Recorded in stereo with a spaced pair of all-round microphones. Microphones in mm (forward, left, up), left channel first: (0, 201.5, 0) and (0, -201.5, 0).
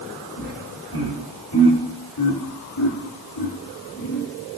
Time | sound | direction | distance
0.4 | laughter | 70° left (ahead or behind) | 6.5 m